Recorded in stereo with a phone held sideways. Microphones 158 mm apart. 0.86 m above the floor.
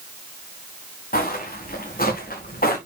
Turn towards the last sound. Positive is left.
turn(degrees=60)  # may be behind; listen again after turning